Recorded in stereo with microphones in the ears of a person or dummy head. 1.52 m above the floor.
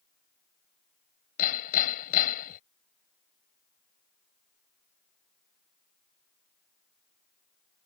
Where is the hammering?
55° left (ahead or behind).